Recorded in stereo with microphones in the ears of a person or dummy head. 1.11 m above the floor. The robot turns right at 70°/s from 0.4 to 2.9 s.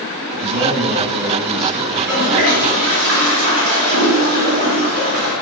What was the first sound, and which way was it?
A man speaking, 80° right.